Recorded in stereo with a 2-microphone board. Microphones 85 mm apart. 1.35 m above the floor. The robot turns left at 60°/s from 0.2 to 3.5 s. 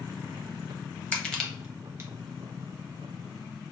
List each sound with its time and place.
1.1 s crushing: 20° left (ahead or behind), 0.9 m; by 2.1 s 35° right (ahead or behind), 0.9 m